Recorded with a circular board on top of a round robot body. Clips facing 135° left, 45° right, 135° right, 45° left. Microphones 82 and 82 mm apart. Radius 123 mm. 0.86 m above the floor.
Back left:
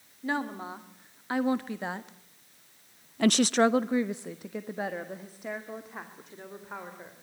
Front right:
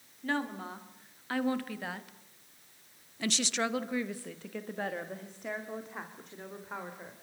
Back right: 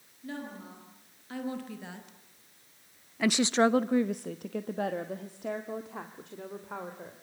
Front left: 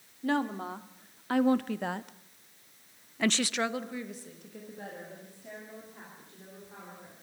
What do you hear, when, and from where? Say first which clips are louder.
0.2 s a woman speaking: back left 2 dB, front left 10 dB; 65° left, 2.5 m; by 7.1 s 135° right, 3.5 m